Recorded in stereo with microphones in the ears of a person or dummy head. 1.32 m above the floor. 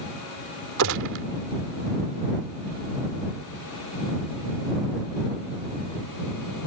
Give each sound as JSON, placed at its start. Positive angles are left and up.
{"t": 0.8, "sound": "a gunshot", "side_deg": -70}